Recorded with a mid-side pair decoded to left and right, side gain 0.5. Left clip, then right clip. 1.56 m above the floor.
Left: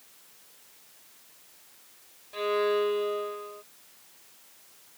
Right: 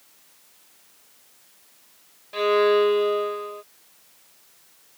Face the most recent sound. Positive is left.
turn(degrees=-45)